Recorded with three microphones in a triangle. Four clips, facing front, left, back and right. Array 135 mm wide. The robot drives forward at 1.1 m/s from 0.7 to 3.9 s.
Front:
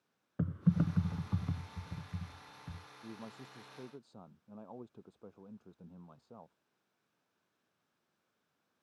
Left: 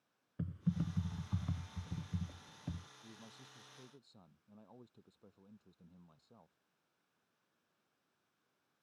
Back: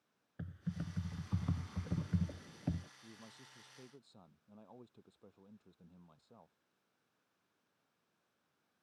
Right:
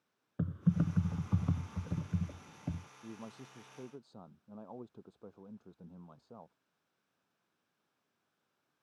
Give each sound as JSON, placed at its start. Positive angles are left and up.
{"t": 0.4, "sound": "typing on a keyboard", "azimuth_deg": -40}
{"t": 3.0, "sound": "a man speaking", "azimuth_deg": -55}